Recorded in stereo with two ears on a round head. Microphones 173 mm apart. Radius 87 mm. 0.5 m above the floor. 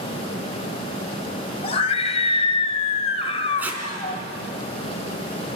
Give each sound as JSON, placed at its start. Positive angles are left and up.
{"t": 1.6, "sound": "a scream", "side_deg": 35, "distance_m": 1.8}
{"t": 3.6, "sound": "tape being pulled", "side_deg": -10, "distance_m": 3.0}